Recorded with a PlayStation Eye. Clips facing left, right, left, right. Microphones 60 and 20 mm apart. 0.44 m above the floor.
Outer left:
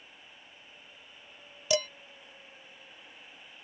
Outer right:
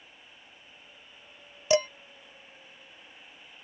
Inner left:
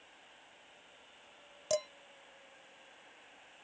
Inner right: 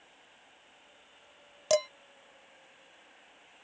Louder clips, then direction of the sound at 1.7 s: Outer right 5 dB, inner right 7 dB; 30° right (ahead or behind).